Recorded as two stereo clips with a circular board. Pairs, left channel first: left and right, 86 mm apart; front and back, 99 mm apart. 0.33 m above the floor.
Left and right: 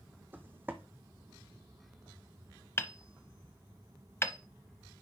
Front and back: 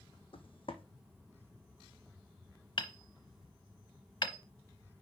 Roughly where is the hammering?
Ahead left.